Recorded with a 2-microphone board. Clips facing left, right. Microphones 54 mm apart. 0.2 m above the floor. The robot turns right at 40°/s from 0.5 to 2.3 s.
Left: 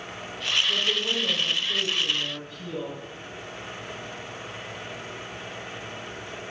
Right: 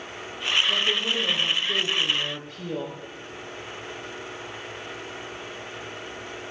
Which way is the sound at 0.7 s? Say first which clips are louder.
Right 1 dB; 155° right.